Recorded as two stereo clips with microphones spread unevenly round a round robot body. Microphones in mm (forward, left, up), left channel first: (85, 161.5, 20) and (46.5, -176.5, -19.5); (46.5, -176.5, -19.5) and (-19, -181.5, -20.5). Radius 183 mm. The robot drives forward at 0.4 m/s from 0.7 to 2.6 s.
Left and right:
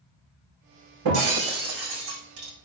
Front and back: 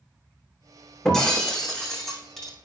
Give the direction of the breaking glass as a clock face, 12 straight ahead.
2 o'clock.